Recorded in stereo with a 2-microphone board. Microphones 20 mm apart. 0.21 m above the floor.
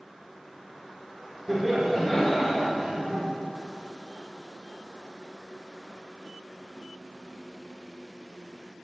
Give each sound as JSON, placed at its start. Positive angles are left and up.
{"t": 1.5, "sound": "laughter", "side_deg": 5, "distance_m": 1.6}